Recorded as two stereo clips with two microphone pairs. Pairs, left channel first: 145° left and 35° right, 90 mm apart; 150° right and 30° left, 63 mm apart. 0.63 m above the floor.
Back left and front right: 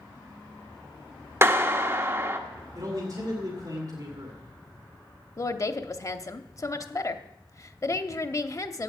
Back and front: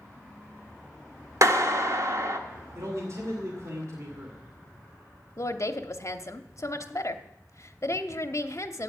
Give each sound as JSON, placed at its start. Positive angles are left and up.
{"t": 1.4, "sound": "a clap", "azimuth_deg": 15, "distance_m": 1.1}
{"t": 2.8, "sound": "a man speaking", "azimuth_deg": 0, "distance_m": 2.0}
{"t": 5.4, "sound": "a woman speaking", "azimuth_deg": -175, "distance_m": 0.9}